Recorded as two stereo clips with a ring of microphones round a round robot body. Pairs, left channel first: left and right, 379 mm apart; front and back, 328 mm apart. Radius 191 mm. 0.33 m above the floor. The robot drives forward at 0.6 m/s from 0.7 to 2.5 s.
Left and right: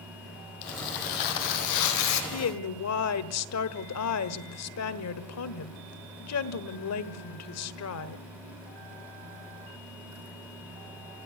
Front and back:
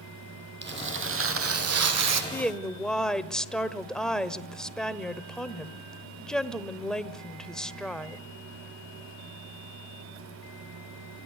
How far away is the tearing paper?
About 1.9 m.